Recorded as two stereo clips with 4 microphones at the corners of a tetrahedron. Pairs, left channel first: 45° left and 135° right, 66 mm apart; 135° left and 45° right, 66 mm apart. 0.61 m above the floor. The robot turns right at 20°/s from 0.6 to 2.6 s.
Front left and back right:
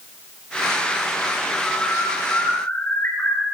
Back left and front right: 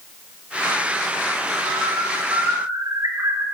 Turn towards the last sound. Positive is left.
turn(degrees=-15)